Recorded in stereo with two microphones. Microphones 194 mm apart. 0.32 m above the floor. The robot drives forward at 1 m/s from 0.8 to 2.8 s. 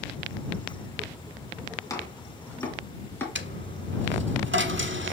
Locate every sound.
1.9 s chopping: 15° left (ahead or behind), 2 m; by 3.2 s 10° left (ahead or behind), 3 m
3.4 s a dropped coin: 80° right, 1.0 m